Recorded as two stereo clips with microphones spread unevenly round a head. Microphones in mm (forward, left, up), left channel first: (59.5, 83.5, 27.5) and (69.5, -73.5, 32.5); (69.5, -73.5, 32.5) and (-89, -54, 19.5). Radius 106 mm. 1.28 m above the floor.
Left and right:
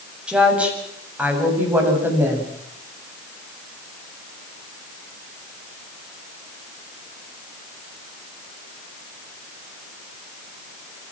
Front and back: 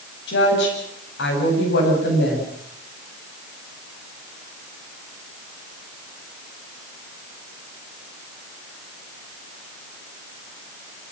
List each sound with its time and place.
0.3 s a woman speaking: 5° right, 8.5 m; by 2.5 s 10° right, 9 m